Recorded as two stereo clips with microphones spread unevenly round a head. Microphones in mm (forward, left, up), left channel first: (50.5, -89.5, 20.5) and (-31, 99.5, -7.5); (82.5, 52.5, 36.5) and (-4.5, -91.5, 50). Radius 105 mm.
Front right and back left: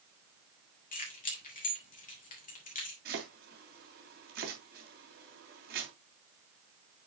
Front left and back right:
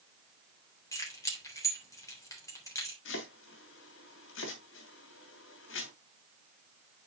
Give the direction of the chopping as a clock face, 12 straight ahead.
10 o'clock.